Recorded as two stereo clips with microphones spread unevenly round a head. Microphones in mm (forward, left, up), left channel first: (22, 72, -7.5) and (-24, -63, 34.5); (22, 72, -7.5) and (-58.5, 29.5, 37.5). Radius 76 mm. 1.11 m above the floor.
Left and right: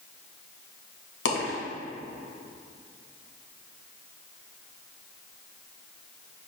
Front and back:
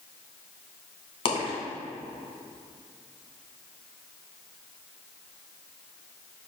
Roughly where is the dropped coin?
Ahead left.